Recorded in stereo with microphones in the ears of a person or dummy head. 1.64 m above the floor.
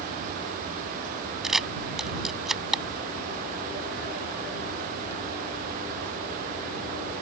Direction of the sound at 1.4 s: Centre (ahead or behind).